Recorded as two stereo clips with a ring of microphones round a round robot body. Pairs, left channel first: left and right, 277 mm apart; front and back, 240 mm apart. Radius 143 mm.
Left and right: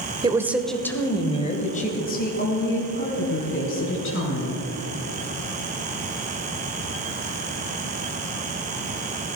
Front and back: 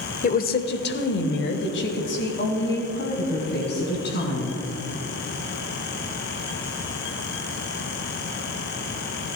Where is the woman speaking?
25° right, 1.1 m; by 4.6 s 45° left, 3.5 m.